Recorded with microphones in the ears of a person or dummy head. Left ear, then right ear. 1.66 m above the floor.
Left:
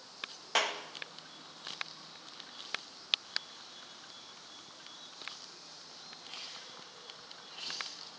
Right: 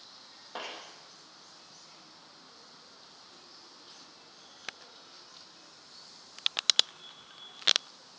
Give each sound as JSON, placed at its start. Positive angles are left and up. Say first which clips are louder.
{"t": 0.6, "sound": "a clap", "louder": "left 9 dB", "side_deg": 65, "distance_m": 2.5}